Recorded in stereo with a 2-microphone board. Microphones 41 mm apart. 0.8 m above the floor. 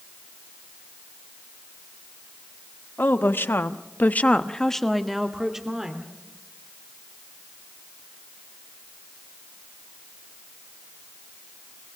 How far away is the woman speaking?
About 1.5 m.